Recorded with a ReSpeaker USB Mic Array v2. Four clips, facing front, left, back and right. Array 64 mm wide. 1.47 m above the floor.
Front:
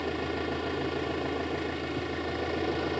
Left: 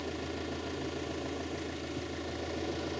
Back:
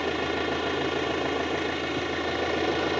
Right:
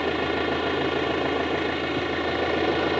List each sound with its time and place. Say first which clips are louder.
0.0 s an engine running: right 13 dB, back 4 dB; 110° right